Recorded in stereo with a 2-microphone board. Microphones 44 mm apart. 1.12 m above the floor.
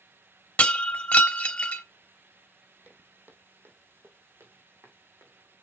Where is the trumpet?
No trumpet in this recording.